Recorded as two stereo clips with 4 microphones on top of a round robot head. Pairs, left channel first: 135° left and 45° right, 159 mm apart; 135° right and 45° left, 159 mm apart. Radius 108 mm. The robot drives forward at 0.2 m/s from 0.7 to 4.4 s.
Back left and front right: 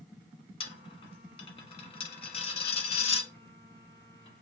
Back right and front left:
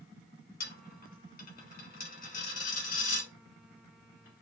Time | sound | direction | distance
0.6 | a dropped coin | 165° right | 1.0 m